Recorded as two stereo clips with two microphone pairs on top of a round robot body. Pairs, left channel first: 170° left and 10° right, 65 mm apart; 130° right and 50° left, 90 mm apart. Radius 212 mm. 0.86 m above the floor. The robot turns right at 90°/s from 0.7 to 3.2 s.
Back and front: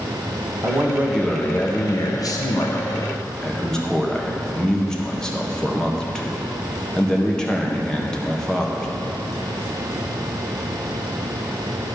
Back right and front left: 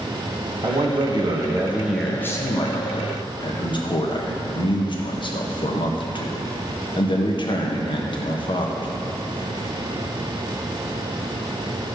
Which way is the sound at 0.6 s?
25° left.